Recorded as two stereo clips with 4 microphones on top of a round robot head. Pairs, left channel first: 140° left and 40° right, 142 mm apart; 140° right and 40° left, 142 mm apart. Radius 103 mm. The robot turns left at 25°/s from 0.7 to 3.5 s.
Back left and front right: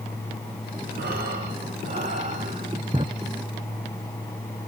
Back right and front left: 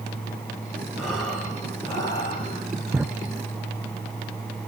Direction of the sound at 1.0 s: 45° right.